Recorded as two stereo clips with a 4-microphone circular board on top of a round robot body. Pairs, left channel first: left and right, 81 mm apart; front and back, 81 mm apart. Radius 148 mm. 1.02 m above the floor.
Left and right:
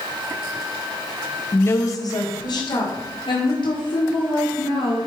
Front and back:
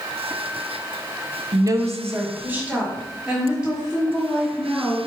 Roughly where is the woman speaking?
Behind left.